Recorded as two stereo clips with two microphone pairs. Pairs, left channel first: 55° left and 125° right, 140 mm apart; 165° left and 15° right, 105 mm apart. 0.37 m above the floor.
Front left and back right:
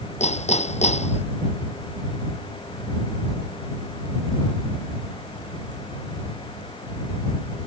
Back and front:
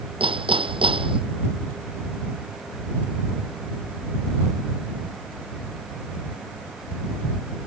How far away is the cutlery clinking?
I don't hear cutlery clinking.